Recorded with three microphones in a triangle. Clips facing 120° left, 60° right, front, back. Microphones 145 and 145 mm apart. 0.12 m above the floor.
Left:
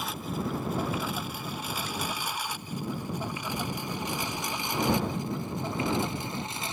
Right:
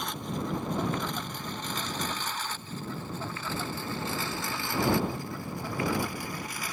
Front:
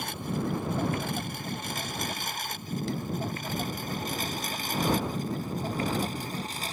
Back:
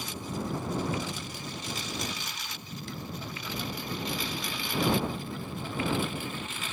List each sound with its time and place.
0.0 s a lawn mower: 35° left; by 6.7 s 55° left